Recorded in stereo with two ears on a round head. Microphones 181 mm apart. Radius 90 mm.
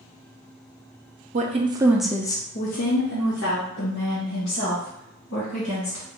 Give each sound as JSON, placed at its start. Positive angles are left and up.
{"t": 1.3, "sound": "a woman speaking", "side_deg": -35, "distance_m": 0.6}